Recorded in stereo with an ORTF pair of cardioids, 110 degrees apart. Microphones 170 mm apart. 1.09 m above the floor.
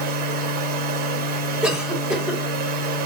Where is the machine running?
65° right, 0.8 m.